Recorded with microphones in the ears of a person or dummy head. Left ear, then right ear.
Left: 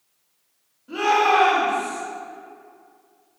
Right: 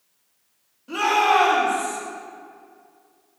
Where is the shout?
45° right (ahead or behind), 2.0 m; by 2.0 s 40° right (ahead or behind), 3 m.